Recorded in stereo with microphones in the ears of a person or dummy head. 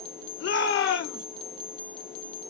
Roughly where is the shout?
Left.